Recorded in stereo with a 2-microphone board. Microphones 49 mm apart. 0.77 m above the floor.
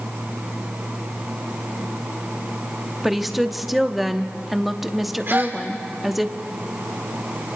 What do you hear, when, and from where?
3.0 s a woman speaking: 5° right (ahead or behind), 0.9 m
5.3 s a gasp: 50° right (ahead or behind), 2.5 m